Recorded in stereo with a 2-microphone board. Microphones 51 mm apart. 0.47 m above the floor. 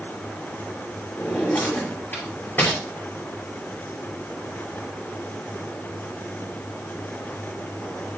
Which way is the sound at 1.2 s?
45° left (ahead or behind).